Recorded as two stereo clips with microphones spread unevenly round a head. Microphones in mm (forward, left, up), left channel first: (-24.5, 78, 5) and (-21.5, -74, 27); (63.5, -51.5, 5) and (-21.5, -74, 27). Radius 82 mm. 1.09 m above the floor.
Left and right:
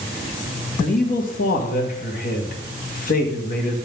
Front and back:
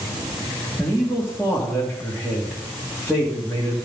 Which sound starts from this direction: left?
A man speaking, at 0.8 s.